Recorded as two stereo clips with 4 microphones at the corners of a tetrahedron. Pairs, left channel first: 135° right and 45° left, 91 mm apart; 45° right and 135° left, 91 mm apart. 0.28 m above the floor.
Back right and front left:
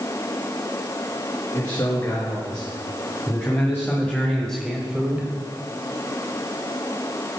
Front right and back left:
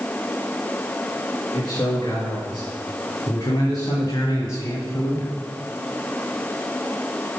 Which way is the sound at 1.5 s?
90° right.